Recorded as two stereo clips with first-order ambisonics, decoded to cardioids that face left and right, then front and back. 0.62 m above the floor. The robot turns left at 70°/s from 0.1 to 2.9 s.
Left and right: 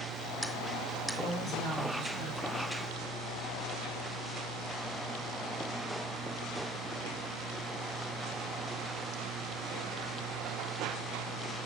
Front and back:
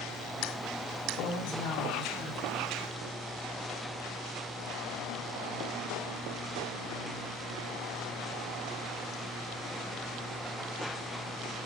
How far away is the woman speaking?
About 6 m.